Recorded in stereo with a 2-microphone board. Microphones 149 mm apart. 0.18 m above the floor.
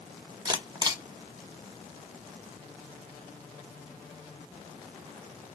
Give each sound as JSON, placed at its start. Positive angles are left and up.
{"t": 0.5, "sound": "a camera shutter", "side_deg": -30, "distance_m": 0.8}